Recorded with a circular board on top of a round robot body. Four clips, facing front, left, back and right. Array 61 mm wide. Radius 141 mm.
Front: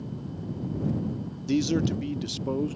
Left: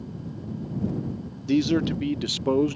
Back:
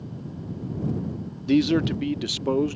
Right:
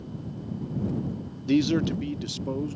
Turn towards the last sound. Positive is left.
turn(degrees=120)